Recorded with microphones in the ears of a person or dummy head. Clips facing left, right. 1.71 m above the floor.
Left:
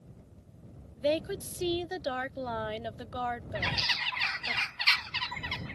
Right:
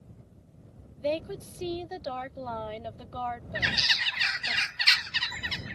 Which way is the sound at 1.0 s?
20° left (ahead or behind).